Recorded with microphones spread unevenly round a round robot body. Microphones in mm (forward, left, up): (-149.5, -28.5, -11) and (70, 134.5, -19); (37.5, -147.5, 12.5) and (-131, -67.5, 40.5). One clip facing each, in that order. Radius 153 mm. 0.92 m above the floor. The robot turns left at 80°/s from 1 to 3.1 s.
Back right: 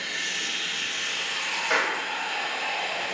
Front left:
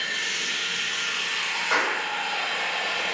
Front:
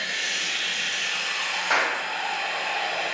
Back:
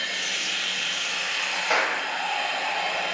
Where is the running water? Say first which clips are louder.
Front left 1 dB, even; 100° right, 1.5 m; by 3.1 s 90° left, 1.5 m.